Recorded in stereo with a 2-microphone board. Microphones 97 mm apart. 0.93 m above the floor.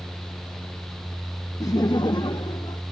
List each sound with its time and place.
1.6 s laughter: 35° left (ahead or behind); by 2.8 s 50° left (ahead or behind)